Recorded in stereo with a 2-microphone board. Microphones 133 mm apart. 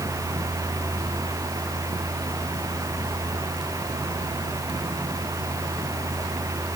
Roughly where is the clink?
No clink in this recording.